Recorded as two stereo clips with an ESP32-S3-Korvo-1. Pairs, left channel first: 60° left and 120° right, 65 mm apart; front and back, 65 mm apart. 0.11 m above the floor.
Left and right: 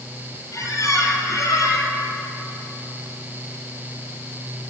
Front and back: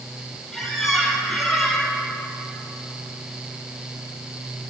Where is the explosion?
No explosion in this recording.